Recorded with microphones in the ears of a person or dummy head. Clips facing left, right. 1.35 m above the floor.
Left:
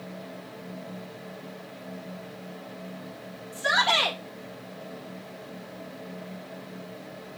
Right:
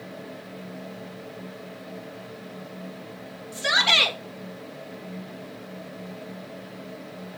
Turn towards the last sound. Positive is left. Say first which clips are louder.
# left 1 dB
turn(degrees=-40)  # may be behind; listen again after turning